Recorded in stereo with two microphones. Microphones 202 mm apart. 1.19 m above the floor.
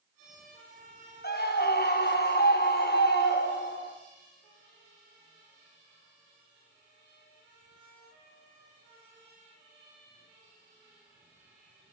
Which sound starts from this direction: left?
A scream, at 1.2 s.